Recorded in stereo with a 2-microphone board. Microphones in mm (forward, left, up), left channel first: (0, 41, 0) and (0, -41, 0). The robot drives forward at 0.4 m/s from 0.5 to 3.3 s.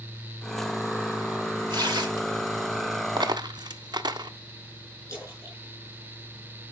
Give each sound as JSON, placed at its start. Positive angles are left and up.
{"t": 1.7, "sound": "tearing paper", "side_deg": -65, "distance_m": 2.0}
{"t": 3.2, "sound": "a dropped coin", "side_deg": -60, "distance_m": 0.5}
{"t": 5.1, "sound": "a splash", "side_deg": 40, "distance_m": 7.5}